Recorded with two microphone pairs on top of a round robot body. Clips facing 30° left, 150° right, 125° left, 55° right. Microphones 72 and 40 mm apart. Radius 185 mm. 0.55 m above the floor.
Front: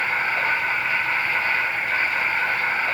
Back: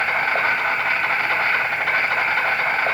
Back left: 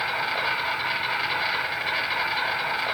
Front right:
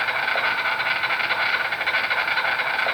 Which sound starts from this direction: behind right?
An insect, at 0.0 s.